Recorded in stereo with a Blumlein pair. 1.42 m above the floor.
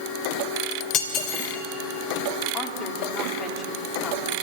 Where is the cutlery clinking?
35° left, 3 m.